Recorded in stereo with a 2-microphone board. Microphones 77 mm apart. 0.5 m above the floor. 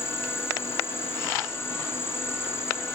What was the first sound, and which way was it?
An insect, 30° left (ahead or behind).